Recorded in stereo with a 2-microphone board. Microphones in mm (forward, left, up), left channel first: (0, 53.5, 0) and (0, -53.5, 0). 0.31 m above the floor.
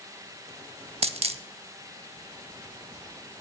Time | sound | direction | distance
1.0 | a dropped coin | 65° right (ahead or behind) | 0.5 m